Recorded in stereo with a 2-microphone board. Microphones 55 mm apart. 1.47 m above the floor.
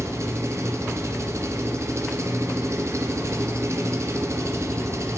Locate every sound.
0.0 s an engine running: 65° right (ahead or behind), 0.8 m